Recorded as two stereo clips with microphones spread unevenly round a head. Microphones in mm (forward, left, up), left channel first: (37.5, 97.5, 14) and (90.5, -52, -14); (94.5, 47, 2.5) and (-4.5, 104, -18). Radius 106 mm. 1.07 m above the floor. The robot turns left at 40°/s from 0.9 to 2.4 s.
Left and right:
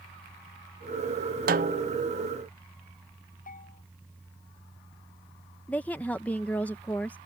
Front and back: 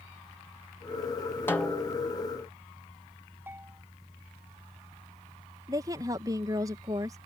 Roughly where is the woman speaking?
Behind.